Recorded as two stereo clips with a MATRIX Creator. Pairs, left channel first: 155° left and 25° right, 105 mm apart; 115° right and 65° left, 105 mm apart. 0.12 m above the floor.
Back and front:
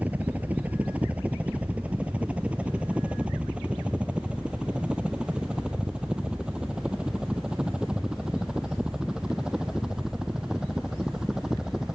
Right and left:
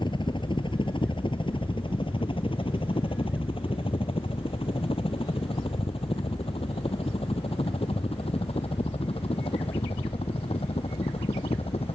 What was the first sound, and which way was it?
A helicopter, 95° right.